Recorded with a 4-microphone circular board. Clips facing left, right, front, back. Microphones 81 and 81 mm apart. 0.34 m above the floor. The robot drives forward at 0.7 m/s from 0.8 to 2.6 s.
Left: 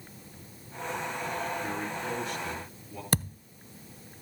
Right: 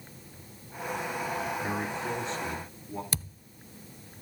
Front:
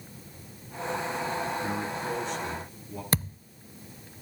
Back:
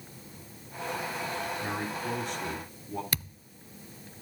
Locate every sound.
1.6 s a man speaking: 145° right, 3 m; by 3.0 s 150° right, 3.5 m
3.1 s a thud: 55° left, 0.6 m